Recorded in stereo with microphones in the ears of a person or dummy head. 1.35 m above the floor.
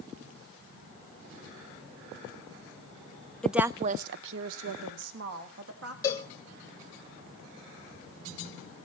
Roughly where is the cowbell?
Centre.